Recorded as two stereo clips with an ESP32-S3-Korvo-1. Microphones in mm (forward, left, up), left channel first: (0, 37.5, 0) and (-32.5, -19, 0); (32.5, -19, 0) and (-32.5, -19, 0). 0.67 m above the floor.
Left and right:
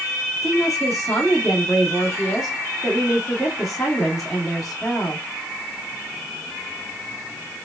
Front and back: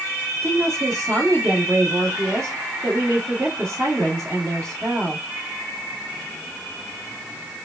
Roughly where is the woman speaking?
Behind left.